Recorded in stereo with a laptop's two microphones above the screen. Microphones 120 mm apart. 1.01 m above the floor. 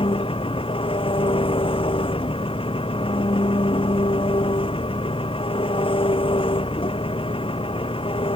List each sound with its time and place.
0.0 s an engine running: 50° left (ahead or behind)